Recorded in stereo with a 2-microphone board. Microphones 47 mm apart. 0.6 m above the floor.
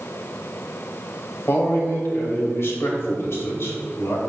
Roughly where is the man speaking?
Left.